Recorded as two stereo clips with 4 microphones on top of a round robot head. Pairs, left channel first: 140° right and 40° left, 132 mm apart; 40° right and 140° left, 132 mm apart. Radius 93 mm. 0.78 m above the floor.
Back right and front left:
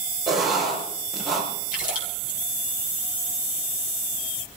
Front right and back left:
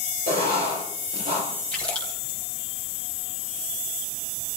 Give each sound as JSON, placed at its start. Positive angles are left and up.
{"t": 0.3, "sound": "writing", "azimuth_deg": 130, "distance_m": 6.0}
{"t": 1.7, "sound": "a splash", "azimuth_deg": -125, "distance_m": 4.0}